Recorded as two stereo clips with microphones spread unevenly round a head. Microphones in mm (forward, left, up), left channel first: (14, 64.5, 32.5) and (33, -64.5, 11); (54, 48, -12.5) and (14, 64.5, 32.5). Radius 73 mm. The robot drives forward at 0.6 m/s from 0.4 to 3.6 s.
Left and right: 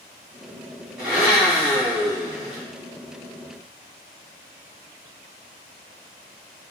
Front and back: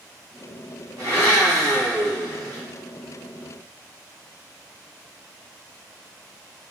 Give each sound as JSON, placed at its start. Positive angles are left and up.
{"t": 1.0, "sound": "a blender", "azimuth_deg": -170, "distance_m": 3.5}